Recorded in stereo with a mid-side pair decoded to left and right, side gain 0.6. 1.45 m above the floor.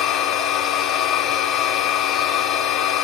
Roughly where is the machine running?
Ahead left.